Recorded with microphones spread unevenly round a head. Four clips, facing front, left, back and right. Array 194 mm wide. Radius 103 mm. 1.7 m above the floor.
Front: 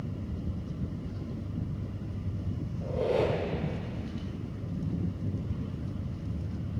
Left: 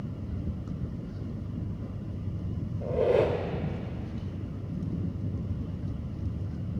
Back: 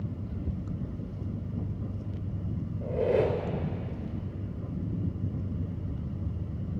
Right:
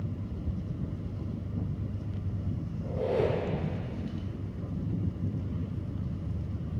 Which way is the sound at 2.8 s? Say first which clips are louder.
Left 5 dB, back 2 dB; 125° left.